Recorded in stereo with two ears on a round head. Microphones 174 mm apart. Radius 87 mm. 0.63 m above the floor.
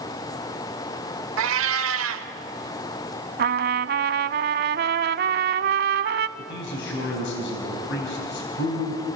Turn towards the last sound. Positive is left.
turn(degrees=65)  # may be behind; listen again after turning